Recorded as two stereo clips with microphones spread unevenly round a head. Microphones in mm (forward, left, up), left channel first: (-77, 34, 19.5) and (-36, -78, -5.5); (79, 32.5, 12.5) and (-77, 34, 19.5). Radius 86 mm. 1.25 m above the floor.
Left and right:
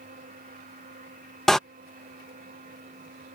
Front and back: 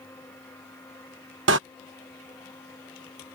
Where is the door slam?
165° right.